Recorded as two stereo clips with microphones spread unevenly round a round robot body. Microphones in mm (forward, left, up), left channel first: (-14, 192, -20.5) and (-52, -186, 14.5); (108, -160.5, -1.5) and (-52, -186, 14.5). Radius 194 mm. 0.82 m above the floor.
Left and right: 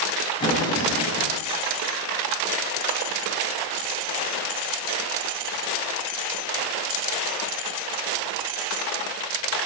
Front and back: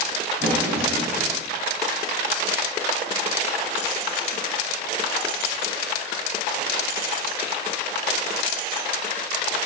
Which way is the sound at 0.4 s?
165° left.